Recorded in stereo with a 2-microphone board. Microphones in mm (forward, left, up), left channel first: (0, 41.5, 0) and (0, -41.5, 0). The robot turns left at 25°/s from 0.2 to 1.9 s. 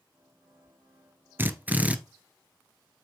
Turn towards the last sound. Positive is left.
turn(degrees=-15)  # may be behind; listen again after turning